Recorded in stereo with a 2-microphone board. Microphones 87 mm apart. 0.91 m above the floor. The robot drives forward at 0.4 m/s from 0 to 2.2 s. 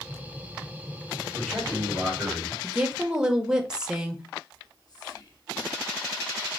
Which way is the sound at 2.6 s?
10° right (ahead or behind).